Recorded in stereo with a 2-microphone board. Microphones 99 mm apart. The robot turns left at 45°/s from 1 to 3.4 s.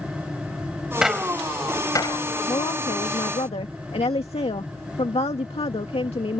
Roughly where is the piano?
I don't hear a piano.